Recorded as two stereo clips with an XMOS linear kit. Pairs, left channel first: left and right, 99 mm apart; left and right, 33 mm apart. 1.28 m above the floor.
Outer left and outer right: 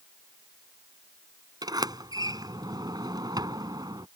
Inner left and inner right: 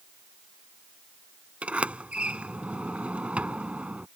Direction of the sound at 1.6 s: 40° right (ahead or behind).